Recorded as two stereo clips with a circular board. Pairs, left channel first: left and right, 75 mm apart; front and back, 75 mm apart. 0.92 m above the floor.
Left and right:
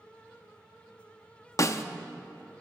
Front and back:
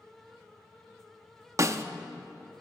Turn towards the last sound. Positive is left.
turn(degrees=135)